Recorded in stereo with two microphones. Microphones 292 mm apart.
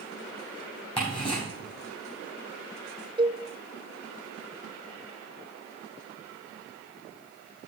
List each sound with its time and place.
1.0 s ticking: 15° left (ahead or behind), 7 m
3.2 s a cowbell: 15° right (ahead or behind), 0.6 m